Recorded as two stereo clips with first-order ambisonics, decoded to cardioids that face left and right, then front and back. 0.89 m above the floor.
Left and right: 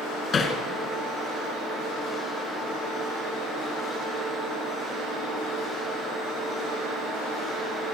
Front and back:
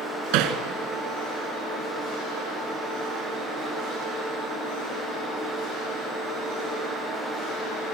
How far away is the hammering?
About 2.5 m.